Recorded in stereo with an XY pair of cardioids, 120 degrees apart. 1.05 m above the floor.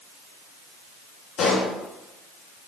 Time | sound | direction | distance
1.4 | a pop | 50° left | 2.5 m